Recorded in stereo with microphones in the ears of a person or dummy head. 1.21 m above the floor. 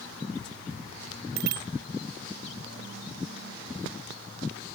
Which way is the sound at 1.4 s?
60° right (ahead or behind).